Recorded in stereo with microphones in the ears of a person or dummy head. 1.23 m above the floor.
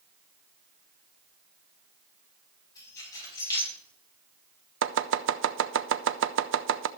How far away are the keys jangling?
About 6 m.